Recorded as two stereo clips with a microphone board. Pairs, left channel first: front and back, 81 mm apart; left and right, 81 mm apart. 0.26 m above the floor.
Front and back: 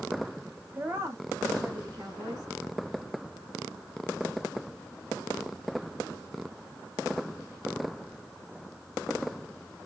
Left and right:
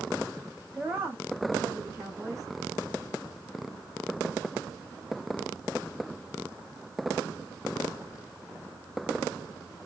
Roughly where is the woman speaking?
Behind right.